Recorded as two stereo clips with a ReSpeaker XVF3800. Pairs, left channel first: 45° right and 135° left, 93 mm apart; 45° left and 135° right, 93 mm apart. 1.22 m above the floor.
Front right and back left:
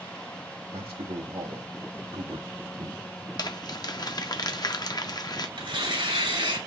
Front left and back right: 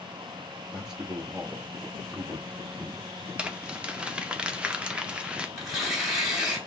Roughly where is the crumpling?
Ahead right.